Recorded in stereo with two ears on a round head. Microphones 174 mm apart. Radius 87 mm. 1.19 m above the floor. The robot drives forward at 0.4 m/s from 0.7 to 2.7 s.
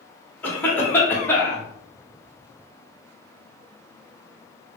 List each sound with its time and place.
0.4 s a cough: 10° left (ahead or behind), 1.0 m; by 1.6 s 15° left (ahead or behind), 0.7 m